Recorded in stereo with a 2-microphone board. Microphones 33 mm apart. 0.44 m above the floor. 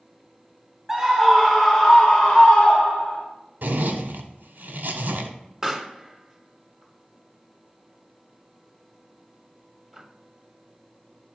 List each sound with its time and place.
0.9 s a scream: 15° right (ahead or behind), 0.9 m; by 3.2 s 40° left (ahead or behind), 1.7 m
3.6 s a zipper: 75° right (ahead or behind), 1.3 m
5.6 s a pop: 10° right (ahead or behind), 1.1 m